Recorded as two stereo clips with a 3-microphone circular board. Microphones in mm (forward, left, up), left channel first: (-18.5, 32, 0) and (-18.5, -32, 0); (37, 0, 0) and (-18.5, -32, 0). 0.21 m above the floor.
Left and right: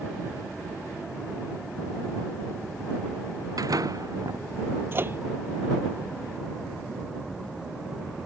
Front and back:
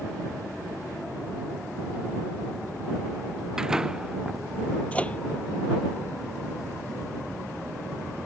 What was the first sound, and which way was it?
A door slam, 65° right.